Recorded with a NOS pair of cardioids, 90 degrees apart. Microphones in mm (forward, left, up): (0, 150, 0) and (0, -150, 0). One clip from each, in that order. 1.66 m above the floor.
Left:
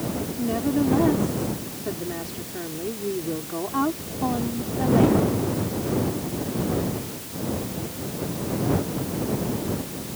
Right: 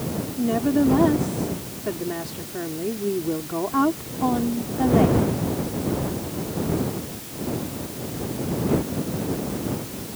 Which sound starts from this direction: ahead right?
A woman speaking, at 0.4 s.